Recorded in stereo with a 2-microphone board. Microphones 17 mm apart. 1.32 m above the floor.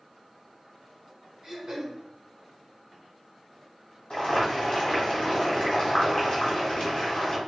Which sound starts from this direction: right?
Throat clearing, at 1.4 s.